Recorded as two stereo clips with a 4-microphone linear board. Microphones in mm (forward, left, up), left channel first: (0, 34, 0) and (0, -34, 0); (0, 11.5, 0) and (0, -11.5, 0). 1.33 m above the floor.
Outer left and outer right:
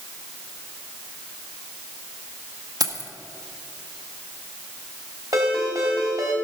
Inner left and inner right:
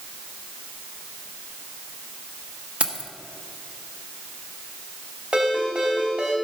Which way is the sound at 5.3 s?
55° right (ahead or behind).